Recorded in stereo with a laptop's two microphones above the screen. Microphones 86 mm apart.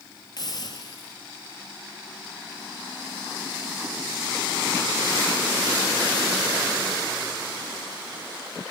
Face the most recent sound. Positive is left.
turn(degrees=50)  # may be behind; listen again after turning